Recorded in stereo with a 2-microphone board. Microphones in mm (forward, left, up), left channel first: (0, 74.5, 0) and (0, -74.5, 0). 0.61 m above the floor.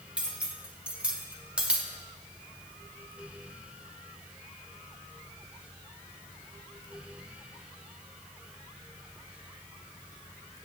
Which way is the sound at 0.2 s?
10° right (ahead or behind).